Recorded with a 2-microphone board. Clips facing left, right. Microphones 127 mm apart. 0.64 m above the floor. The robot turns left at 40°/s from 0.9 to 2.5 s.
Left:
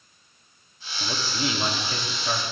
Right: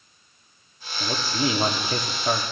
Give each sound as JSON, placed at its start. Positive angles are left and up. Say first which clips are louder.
{"t": 1.0, "sound": "a man speaking", "louder": "right 4 dB", "azimuth_deg": -20, "distance_m": 0.9}